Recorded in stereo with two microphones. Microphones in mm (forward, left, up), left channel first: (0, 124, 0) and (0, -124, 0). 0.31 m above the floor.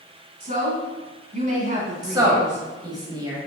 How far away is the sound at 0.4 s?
About 2 m.